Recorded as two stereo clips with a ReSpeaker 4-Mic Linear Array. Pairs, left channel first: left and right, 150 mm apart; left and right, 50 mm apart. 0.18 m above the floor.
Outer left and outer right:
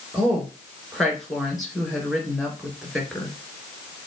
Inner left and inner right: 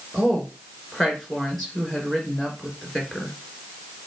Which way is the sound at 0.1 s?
Centre (ahead or behind).